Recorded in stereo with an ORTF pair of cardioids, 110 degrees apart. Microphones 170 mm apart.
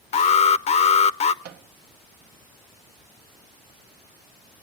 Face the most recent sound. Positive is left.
turn(degrees=-70)